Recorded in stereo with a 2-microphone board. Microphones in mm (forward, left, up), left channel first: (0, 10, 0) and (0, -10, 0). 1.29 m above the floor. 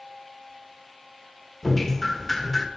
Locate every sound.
1.6 s dripping: 10° left (ahead or behind), 1.1 m